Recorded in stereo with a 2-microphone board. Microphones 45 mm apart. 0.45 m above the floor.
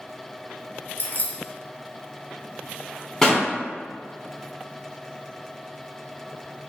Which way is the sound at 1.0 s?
40° left (ahead or behind).